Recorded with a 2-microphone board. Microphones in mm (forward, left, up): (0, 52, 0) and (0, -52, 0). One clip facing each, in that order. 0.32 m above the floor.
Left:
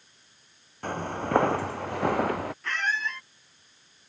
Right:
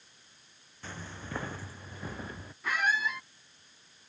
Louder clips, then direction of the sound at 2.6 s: Right 4 dB; 10° right (ahead or behind).